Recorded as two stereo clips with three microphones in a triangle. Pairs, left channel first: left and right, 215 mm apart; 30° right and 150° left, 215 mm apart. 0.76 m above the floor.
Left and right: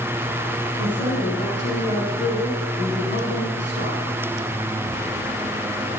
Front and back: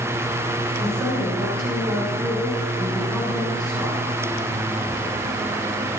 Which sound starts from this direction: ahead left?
A woman speaking, at 0.8 s.